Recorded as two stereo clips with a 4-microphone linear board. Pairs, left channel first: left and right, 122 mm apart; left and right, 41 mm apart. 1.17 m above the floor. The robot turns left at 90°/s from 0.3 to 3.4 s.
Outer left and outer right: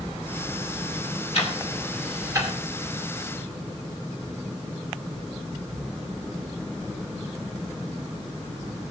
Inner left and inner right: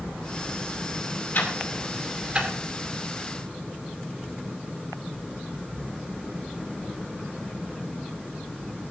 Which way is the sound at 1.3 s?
60° left (ahead or behind).